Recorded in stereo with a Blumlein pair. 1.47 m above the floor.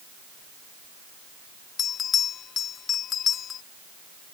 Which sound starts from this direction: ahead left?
A bell, at 1.8 s.